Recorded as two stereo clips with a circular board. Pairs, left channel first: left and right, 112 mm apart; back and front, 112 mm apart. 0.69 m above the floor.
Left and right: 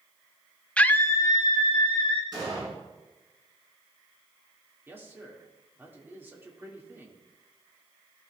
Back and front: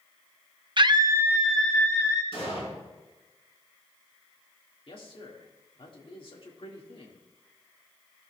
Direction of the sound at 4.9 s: 160° right.